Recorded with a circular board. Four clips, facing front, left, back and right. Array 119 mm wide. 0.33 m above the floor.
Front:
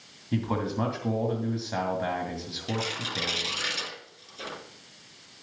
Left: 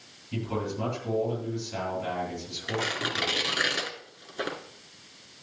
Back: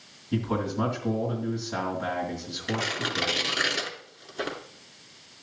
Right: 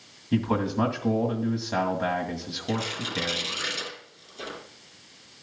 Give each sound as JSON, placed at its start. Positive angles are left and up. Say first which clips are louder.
{"t": 0.3, "sound": "a man speaking", "louder": "right 7 dB, back 1 dB", "azimuth_deg": -70, "distance_m": 2.0}
{"t": 2.7, "sound": "tearing paper", "louder": "even, back 3 dB", "azimuth_deg": 130, "distance_m": 2.5}